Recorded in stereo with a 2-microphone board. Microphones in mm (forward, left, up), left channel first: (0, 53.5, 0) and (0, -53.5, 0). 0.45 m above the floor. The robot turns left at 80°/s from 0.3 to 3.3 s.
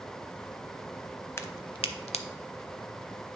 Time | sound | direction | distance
1.4 | a crack | 25° left (ahead or behind) | 0.6 m